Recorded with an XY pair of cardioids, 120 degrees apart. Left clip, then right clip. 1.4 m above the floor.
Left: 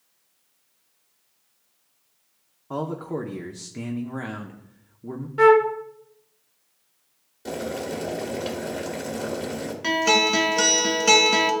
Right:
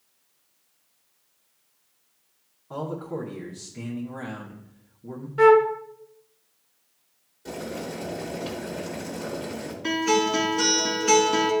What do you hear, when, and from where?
2.7 s a man speaking: 40° left, 0.8 m
5.4 s a flute: 10° left, 0.5 m
7.5 s boiling: 45° left, 1.6 m
9.8 s a guitar: 65° left, 1.4 m